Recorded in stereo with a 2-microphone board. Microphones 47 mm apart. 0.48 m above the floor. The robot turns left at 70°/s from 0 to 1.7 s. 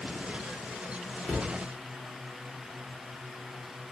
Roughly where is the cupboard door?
Centre.